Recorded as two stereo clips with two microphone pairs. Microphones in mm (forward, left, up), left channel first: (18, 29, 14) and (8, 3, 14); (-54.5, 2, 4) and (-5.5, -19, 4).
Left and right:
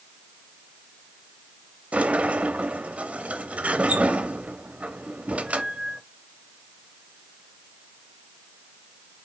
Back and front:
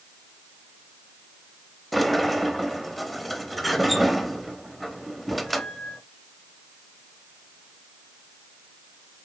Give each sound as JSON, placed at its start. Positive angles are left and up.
{"t": 1.9, "sound": "a sliding door", "azimuth_deg": -115, "distance_m": 0.6}